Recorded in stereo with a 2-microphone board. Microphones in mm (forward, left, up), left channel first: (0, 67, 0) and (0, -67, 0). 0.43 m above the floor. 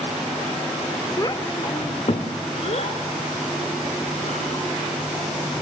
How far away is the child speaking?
About 0.9 m.